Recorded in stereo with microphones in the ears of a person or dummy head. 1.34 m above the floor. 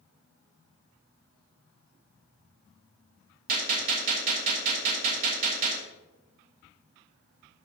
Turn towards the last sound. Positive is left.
turn(degrees=-45)  # may be behind; listen again after turning